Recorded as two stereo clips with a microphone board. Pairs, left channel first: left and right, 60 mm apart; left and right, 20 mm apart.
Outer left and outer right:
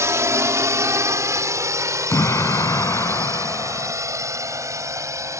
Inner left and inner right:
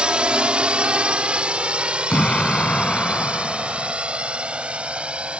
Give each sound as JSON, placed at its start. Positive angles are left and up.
{"t": 0.0, "sound": "a drone", "side_deg": -60}
{"t": 2.1, "sound": "an explosion", "side_deg": 75}